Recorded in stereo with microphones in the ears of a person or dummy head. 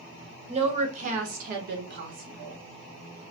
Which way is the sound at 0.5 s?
35° right (ahead or behind).